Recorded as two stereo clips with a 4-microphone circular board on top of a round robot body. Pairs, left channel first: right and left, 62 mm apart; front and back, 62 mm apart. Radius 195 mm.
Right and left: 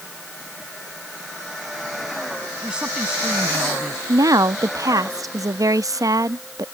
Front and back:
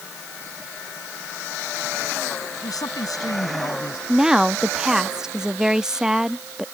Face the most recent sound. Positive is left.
turn(degrees=100)